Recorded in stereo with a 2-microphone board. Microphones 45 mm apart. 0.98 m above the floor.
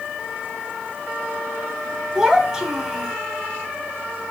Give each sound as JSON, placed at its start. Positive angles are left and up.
{"t": 2.1, "sound": "a child speaking", "side_deg": -15, "distance_m": 1.6}